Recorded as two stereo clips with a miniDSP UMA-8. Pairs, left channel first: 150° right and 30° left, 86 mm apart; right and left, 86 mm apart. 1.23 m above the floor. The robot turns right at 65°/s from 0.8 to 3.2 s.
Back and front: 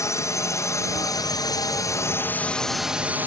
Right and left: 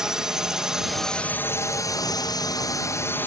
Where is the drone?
170° left; by 3.3 s 35° right.